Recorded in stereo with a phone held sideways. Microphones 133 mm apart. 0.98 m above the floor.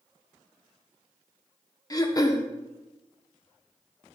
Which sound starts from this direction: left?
Throat clearing, at 1.9 s.